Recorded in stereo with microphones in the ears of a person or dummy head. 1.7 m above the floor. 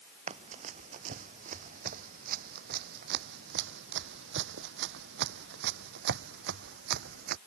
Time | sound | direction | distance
0.3 | running footsteps | 40° right (ahead or behind) | ?